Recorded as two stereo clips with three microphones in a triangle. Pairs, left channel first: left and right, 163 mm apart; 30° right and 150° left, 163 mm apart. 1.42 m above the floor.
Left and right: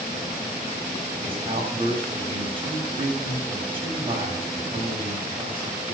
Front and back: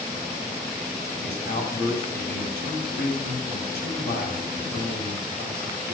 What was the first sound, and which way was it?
A man speaking, 30° right.